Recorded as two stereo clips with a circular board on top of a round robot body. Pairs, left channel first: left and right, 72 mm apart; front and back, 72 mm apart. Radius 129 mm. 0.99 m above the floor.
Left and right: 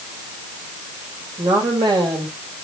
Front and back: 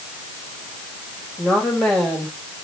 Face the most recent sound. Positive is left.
turn(degrees=-80)